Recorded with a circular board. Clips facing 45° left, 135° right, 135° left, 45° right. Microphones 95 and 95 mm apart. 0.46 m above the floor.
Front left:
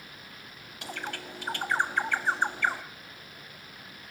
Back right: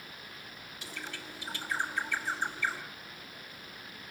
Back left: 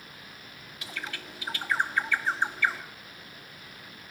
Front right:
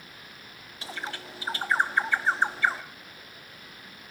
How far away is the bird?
About 0.8 m.